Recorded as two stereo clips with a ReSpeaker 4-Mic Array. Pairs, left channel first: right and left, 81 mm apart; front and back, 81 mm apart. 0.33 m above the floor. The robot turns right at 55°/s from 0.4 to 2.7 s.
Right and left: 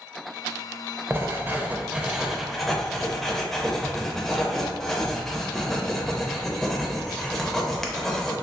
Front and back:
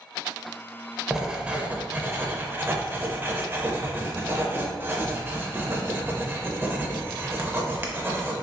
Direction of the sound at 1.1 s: 105° left.